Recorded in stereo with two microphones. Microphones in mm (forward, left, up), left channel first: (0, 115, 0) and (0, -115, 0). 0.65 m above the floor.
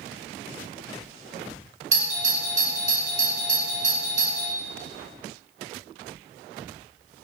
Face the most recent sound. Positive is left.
turn(degrees=-30)  # may be behind; listen again after turning